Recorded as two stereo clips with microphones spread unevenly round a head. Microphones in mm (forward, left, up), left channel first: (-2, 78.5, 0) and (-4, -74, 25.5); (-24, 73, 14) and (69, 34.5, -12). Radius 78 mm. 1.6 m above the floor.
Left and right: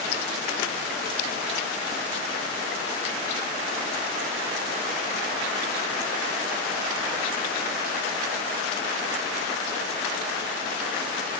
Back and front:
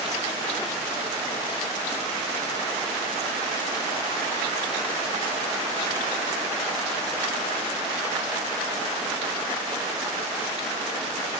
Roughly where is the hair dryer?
No hair dryer in this recording.